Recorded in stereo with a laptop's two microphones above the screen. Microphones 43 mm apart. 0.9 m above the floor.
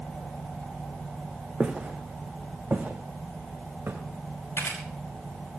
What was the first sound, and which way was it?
Footsteps, 25° right (ahead or behind).